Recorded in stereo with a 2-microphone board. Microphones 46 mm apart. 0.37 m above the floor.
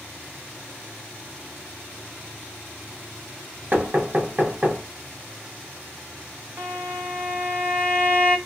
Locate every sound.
3.7 s knocking: 40° right (ahead or behind), 1.3 m
6.6 s a violin: 40° right (ahead or behind), 1.3 m